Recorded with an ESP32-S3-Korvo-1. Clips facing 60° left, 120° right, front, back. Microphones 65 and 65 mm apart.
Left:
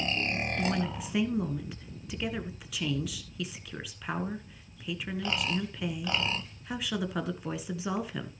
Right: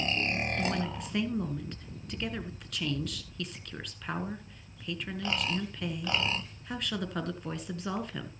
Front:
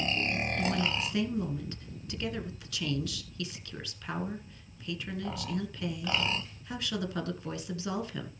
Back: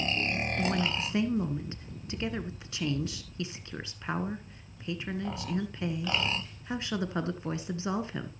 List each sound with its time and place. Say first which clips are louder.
0.6 s a woman speaking: left 1 dB, back 2 dB; 140° left, 1.4 m